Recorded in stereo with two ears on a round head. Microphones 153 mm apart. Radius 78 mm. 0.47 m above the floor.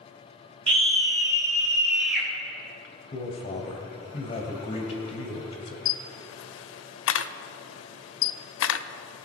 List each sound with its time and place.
0.7 s a scream: 30° right (ahead or behind), 1.8 m; by 2.3 s 5° right (ahead or behind), 2.5 m
3.1 s a man speaking: 30° left (ahead or behind), 2 m
5.8 s a camera shutter: 75° left (ahead or behind), 0.6 m